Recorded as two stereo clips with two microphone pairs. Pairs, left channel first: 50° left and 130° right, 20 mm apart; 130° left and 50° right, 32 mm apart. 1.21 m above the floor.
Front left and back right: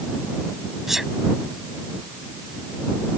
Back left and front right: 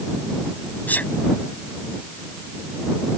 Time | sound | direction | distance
0.9 | a sneeze | 160° left | ?